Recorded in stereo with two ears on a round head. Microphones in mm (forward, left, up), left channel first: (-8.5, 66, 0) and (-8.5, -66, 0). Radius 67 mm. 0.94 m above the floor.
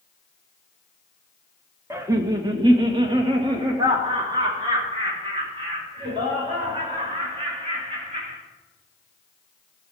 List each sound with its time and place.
1.9 s laughter: 20° right (ahead or behind), 0.9 m; by 8.4 s 30° right (ahead or behind), 6.5 m